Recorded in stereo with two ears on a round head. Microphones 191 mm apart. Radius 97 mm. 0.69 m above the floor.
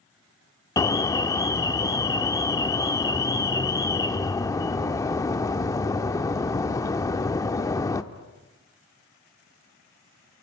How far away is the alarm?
About 1.0 m.